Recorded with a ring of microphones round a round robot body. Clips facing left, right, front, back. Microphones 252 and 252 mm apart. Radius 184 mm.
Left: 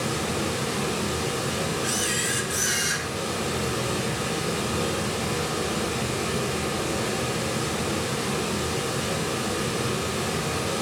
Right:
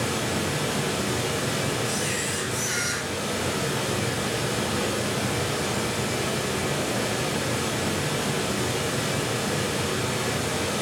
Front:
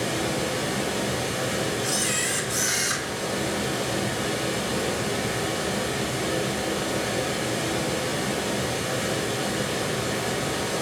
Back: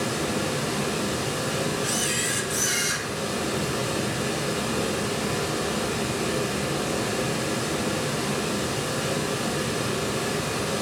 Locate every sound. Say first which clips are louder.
0.0 s running water: even, even; 70° right, 1.9 m
1.8 s a camera shutter: even, even; 70° left, 0.9 m